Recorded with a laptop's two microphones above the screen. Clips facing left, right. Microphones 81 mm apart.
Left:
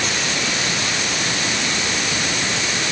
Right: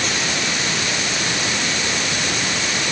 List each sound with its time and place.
Only background noise.